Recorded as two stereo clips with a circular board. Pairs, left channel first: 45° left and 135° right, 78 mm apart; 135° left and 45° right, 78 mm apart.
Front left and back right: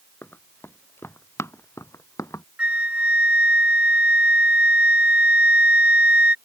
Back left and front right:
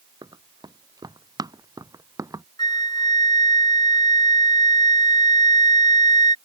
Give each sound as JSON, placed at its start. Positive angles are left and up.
{"t": 0.2, "sound": "running footsteps", "azimuth_deg": -20}
{"t": 2.6, "sound": "a flute", "azimuth_deg": 150}